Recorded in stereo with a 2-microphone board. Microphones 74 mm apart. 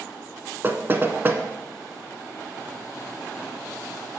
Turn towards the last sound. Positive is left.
turn(degrees=-30)  # may be behind; listen again after turning